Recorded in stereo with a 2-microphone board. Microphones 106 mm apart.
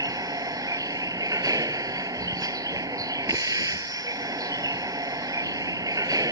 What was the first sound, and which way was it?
A vehicle, 40° right (ahead or behind).